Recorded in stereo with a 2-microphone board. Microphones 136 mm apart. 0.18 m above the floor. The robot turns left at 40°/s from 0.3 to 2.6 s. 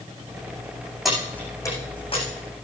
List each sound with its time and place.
1.1 s keys jangling: centre (ahead or behind), 8.5 m; by 2.2 s 45° left (ahead or behind), 8.5 m